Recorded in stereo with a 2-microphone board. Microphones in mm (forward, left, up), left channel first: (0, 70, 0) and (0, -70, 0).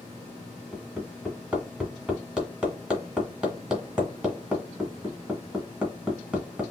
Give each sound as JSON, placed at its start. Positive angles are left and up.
{"t": 0.7, "sound": "hammering", "side_deg": -5, "distance_m": 1.7}